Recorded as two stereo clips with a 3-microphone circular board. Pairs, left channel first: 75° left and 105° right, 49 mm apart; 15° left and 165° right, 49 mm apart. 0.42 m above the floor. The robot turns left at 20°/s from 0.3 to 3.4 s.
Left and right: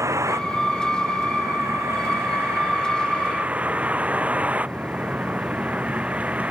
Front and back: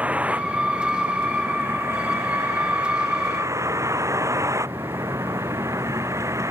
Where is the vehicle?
105° right; by 6.5 s 165° right.